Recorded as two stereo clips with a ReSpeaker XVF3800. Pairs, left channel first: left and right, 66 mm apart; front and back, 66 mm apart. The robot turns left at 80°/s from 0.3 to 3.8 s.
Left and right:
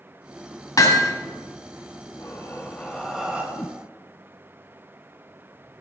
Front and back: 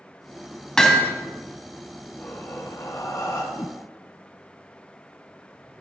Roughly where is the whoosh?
Ahead left.